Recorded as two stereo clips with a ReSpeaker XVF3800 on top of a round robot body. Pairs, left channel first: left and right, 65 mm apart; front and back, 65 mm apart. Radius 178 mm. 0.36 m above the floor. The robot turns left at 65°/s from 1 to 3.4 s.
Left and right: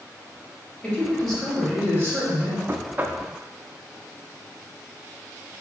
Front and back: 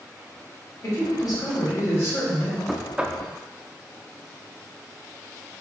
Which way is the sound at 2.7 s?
95° right.